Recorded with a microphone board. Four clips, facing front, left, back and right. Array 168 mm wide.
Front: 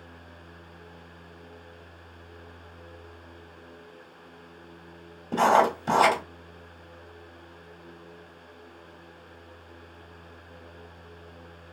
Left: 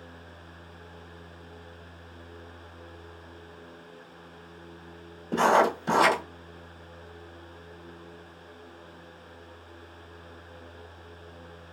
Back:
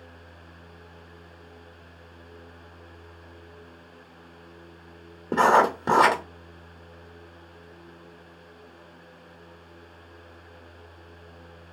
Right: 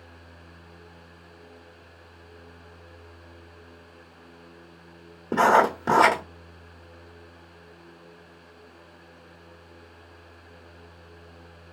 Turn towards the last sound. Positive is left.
turn(degrees=-140)